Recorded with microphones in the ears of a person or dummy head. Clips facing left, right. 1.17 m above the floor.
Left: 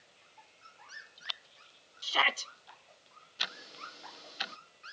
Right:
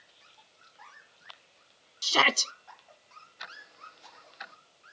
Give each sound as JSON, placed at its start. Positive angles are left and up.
{"t": 2.0, "sound": "a shout", "side_deg": -50}
{"t": 3.4, "sound": "ticking", "side_deg": 40}